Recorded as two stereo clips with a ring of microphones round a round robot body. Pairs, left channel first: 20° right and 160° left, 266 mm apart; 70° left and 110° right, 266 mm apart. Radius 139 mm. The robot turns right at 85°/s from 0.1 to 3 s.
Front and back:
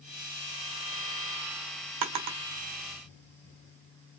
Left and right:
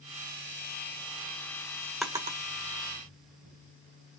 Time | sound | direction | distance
2.0 | a drawer | 155° left | 1.4 m